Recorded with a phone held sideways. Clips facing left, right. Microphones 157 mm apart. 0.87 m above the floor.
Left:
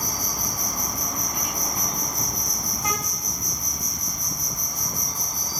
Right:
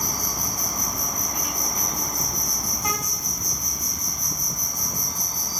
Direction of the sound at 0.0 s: 45° right (ahead or behind).